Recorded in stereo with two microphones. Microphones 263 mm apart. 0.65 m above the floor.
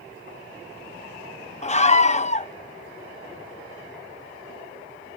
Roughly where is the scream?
Left.